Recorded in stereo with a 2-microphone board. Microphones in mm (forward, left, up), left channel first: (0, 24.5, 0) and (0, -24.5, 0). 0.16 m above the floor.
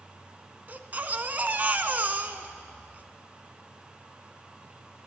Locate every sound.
0.7 s a baby crying: 40° right (ahead or behind), 0.6 m